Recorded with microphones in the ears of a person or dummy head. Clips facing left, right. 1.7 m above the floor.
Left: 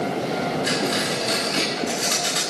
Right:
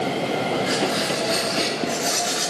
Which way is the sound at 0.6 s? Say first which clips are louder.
Right 1 dB; 35° left (ahead or behind).